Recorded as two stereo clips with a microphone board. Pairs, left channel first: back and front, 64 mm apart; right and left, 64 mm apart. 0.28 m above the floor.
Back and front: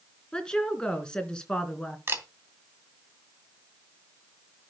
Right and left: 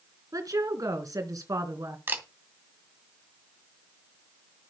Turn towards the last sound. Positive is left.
turn(degrees=40)